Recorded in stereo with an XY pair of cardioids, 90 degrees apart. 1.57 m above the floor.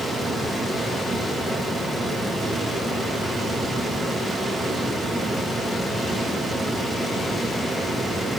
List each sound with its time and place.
0.0 s a fan: 35° right, 2.5 m